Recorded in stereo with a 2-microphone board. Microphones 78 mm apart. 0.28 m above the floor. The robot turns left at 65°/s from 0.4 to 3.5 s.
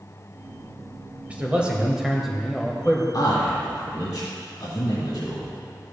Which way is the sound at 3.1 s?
55° left (ahead or behind).